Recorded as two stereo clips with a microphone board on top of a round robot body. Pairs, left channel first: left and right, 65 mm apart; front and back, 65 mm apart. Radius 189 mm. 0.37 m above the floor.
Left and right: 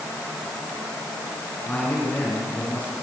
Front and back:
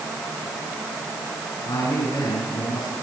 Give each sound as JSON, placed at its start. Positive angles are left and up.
{"t": 1.6, "sound": "a man speaking", "azimuth_deg": 20, "distance_m": 7.0}